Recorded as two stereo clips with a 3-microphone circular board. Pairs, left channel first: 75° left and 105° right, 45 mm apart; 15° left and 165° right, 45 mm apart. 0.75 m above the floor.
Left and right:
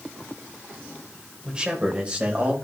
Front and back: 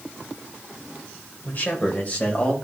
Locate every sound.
1.4 s a man speaking: 35° right, 2.5 m; by 2.5 s 45° right, 3 m